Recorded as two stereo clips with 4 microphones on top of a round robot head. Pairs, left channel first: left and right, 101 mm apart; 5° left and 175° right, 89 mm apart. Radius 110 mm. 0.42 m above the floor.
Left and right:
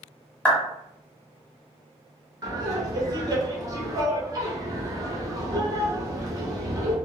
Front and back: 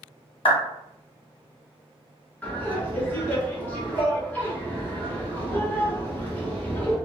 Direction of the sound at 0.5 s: 15° left.